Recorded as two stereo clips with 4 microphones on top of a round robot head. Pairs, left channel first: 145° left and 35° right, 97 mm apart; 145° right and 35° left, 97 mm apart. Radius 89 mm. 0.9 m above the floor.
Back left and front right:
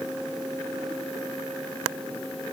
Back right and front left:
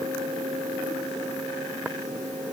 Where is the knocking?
No knocking in this recording.